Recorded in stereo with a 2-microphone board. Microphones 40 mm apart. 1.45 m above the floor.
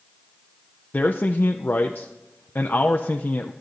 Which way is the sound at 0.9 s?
50° left (ahead or behind).